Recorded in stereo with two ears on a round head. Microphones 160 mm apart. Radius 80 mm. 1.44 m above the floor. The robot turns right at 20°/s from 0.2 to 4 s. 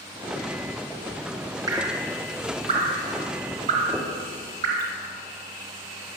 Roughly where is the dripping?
Right.